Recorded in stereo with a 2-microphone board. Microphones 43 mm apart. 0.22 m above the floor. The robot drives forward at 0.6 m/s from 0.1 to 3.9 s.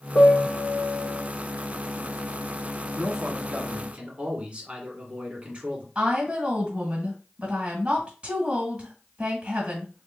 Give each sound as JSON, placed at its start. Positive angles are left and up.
{"t": 0.1, "sound": "a piano", "side_deg": 80, "distance_m": 0.8}
{"t": 3.0, "sound": "a man speaking", "side_deg": -30, "distance_m": 1.4}
{"t": 6.0, "sound": "a woman speaking", "side_deg": -25, "distance_m": 1.6}